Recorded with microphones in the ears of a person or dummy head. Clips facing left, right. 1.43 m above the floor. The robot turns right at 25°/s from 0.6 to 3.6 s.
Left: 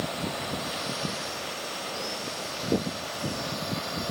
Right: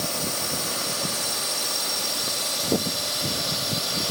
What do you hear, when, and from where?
0.0 s a drone: 120° right; by 4.1 s 45° right